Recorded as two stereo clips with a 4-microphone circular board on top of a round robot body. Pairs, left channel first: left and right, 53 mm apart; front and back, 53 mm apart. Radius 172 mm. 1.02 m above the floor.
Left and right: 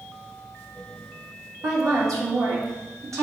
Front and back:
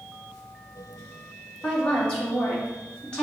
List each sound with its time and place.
1.6 s a woman speaking: 70° right, 2.5 m